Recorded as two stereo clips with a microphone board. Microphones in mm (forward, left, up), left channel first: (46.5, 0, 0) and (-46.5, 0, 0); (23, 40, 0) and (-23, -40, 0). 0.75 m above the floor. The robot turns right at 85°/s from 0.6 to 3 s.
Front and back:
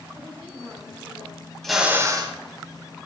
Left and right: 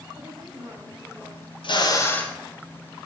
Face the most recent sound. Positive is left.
turn(degrees=-160)